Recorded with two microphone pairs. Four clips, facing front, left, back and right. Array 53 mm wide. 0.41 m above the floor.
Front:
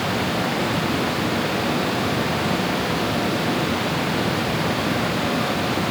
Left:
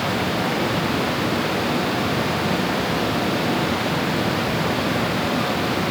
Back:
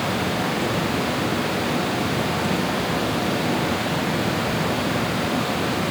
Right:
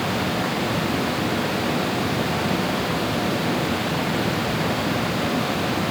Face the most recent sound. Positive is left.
No sound to turn to.